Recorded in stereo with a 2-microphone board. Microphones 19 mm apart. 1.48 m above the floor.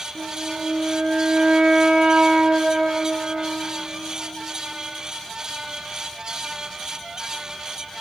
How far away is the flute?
About 2 m.